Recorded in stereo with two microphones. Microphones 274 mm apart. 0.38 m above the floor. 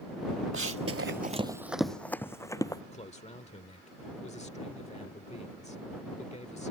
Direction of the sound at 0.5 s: 50° right (ahead or behind).